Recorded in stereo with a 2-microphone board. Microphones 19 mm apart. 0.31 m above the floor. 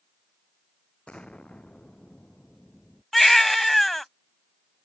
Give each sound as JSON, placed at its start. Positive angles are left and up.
{"t": 1.1, "sound": "an explosion", "side_deg": 65}
{"t": 3.1, "sound": "a baby crying", "side_deg": 10}